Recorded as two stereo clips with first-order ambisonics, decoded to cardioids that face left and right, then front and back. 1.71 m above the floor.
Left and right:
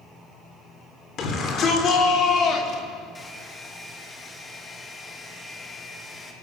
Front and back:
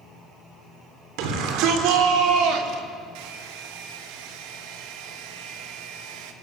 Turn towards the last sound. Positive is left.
turn(degrees=170)